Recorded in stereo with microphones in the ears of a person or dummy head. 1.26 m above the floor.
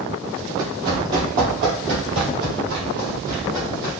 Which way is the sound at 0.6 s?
25° right (ahead or behind).